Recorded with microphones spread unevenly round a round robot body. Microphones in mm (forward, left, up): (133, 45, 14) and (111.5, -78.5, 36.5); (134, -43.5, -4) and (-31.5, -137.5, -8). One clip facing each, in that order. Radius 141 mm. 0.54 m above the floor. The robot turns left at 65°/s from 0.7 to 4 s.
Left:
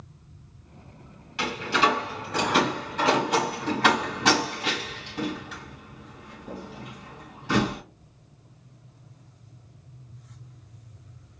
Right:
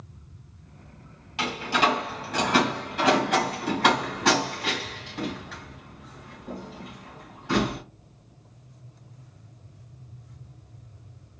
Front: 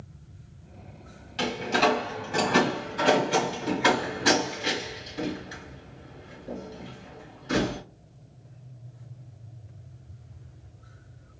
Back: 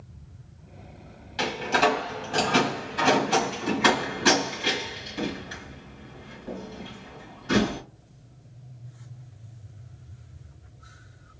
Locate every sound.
1.4 s a door slam: 35° right, 4 m; by 7.8 s 155° left, 4 m